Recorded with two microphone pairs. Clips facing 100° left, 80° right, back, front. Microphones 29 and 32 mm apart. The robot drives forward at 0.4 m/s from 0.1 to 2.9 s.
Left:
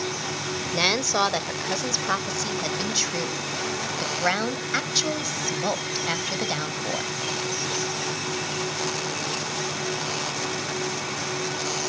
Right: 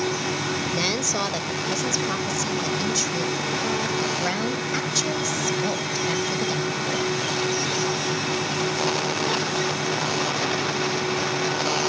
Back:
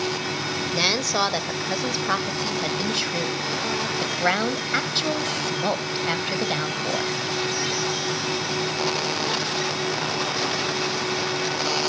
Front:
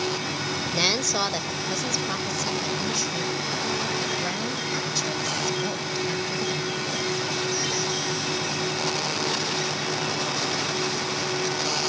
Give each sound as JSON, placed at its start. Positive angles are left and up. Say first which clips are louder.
{"t": 0.7, "sound": "a woman speaking", "louder": "left 6 dB, back 2 dB", "azimuth_deg": 110, "distance_m": 0.9}